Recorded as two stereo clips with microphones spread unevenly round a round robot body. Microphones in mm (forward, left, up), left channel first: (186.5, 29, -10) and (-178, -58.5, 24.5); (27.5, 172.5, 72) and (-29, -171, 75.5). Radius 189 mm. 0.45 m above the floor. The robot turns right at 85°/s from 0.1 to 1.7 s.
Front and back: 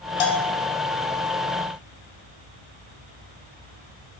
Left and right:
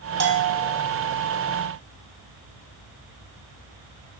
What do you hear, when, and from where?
0.2 s a bell: 40° right, 1.7 m; by 0.7 s straight ahead, 1.7 m